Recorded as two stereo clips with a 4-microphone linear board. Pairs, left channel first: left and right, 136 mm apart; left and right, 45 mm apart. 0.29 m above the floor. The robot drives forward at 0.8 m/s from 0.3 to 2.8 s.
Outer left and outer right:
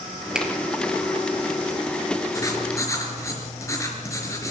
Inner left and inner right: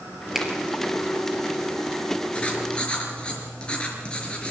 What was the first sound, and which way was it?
A finger snap, 5° right (ahead or behind).